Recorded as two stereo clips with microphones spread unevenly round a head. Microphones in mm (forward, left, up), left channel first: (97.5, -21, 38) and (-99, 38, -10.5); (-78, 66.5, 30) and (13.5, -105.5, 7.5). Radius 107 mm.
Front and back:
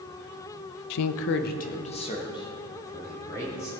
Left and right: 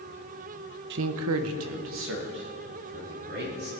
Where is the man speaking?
20° right, 0.5 m; by 3.7 s 95° right, 3 m.